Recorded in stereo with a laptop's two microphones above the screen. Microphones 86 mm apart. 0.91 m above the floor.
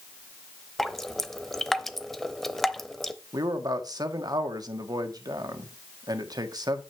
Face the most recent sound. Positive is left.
turn(degrees=-50)  # may be behind; listen again after turning